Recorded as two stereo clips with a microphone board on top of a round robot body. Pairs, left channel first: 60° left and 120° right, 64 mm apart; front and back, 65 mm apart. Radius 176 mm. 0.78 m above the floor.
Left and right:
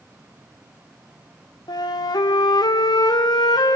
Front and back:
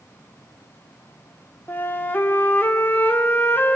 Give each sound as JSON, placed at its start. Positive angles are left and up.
{"t": 1.7, "sound": "a flute", "azimuth_deg": 60, "distance_m": 1.8}